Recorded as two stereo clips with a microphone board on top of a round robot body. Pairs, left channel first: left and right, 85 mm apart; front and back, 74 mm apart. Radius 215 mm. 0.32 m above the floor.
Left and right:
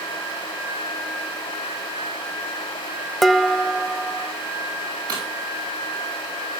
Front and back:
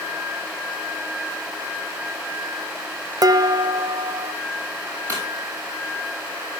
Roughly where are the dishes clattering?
Behind.